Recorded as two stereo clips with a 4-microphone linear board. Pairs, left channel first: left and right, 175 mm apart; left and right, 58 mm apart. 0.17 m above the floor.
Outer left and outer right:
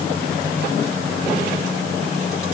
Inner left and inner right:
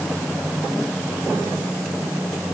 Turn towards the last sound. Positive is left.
No sound to turn to.